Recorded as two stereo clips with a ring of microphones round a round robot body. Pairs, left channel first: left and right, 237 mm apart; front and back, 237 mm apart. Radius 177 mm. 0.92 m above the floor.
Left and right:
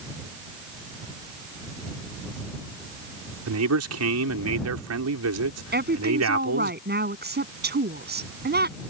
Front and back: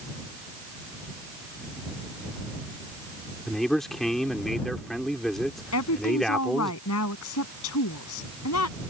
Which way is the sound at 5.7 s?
45° right.